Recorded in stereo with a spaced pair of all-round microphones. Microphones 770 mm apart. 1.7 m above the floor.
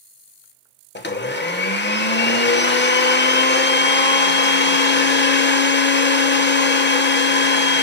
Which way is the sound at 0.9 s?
15° left (ahead or behind).